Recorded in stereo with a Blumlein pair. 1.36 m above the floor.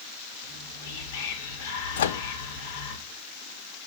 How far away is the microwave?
About 0.7 m.